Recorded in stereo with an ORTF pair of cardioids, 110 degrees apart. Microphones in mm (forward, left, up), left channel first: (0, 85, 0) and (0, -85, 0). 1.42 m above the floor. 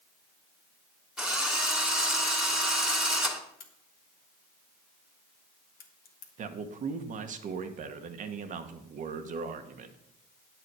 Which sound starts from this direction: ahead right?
A man speaking, at 6.4 s.